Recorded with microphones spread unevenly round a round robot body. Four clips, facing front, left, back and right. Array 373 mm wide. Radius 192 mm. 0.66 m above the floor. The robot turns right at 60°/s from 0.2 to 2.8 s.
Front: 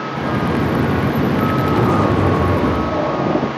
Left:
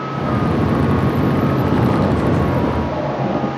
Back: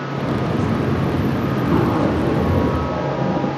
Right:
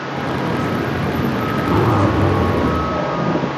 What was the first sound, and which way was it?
A zipper, 90° right.